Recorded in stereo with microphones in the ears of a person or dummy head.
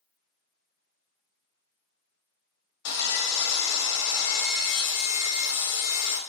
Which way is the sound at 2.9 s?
60° left (ahead or behind).